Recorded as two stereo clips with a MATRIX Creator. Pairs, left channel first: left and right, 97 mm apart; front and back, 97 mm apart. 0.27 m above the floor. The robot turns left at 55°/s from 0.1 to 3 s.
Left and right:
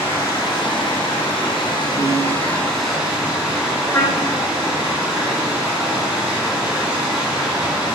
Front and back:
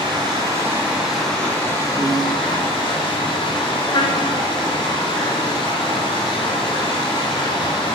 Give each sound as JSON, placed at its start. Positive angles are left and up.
{"t": 0.0, "sound": "running water", "azimuth_deg": 150, "distance_m": 2.0}
{"t": 2.0, "sound": "a piano", "azimuth_deg": -110, "distance_m": 1.1}
{"t": 3.9, "sound": "a trumpet", "azimuth_deg": 30, "distance_m": 0.9}